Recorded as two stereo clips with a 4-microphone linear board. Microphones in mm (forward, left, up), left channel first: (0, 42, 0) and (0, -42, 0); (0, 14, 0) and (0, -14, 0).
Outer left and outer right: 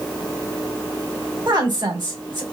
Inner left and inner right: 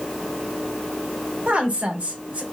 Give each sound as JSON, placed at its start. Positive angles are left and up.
{"t": 1.5, "sound": "a woman speaking", "side_deg": -60, "distance_m": 1.8}